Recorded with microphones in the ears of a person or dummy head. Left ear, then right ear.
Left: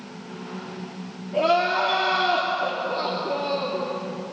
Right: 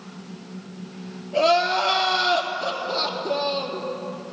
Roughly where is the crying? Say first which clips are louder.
Right 1 dB; right.